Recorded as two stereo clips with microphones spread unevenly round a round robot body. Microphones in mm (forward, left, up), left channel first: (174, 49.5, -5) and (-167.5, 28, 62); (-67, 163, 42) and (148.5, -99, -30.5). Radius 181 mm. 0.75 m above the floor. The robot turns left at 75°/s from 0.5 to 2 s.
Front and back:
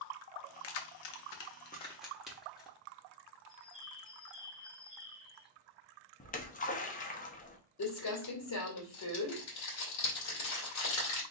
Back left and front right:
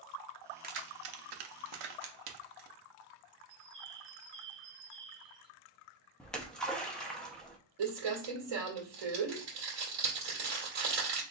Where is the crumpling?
40° right, 2 m.